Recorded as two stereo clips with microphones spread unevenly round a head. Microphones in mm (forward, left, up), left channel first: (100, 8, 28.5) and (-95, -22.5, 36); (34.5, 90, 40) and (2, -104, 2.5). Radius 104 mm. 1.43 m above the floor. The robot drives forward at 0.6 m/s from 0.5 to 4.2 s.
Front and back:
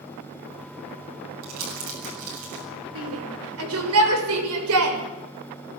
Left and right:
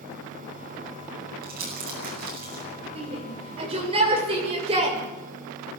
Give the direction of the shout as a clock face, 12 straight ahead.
5 o'clock.